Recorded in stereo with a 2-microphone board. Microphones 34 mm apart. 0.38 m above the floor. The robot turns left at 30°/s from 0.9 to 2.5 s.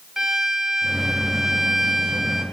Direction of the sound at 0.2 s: 20° right (ahead or behind).